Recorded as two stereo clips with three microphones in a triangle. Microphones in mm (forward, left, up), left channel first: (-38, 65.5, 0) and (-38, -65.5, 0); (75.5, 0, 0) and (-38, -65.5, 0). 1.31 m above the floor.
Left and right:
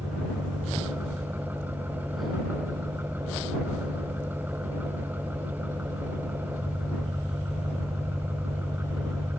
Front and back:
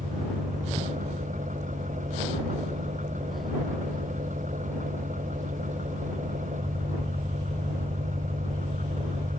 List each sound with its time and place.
0.0 s an engine running: 165° right